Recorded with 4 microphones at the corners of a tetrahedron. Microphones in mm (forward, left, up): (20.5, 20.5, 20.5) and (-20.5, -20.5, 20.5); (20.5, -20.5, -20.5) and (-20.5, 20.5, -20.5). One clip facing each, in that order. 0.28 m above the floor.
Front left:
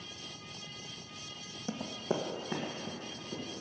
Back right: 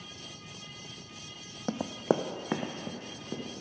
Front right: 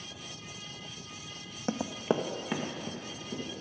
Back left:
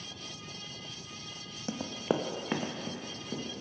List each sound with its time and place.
1.7 s running footsteps: 100° right, 0.7 m; by 3.6 s 160° right, 3 m